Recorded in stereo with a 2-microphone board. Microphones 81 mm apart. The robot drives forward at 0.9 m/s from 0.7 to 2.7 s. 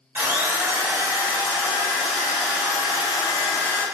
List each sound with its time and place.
0.1 s a drill: 25° right (ahead or behind), 0.9 m; by 3.8 s 10° right (ahead or behind), 2.5 m